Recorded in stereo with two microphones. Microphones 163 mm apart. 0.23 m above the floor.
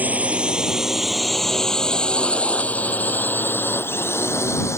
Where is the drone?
10° right (ahead or behind); by 4.8 s 15° left (ahead or behind).